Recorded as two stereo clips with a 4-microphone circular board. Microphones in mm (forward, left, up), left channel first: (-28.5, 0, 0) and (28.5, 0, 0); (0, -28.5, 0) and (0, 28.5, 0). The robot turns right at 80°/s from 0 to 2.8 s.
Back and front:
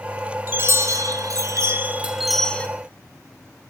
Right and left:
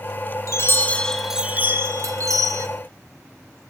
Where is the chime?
60° right, 0.8 m; by 2.7 s 115° left, 0.8 m.